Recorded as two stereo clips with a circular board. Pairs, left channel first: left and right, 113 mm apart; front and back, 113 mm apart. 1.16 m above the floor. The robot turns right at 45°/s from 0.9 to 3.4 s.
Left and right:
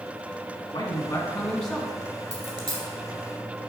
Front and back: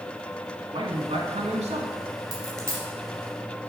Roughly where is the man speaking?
Behind left.